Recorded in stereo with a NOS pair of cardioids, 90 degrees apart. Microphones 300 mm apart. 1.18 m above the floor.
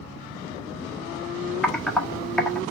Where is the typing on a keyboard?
Straight ahead, 1.3 m.